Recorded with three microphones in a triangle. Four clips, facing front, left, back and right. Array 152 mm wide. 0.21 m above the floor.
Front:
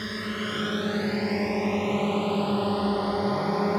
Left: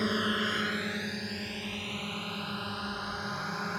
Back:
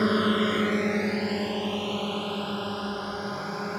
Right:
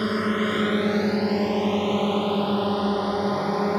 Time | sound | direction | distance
0.0 | a drone | 155° right | ?